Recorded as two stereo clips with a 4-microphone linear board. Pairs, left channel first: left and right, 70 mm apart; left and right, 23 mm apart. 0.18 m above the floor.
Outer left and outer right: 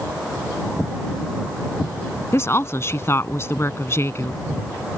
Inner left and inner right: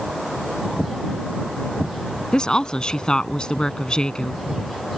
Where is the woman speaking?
40° left (ahead or behind).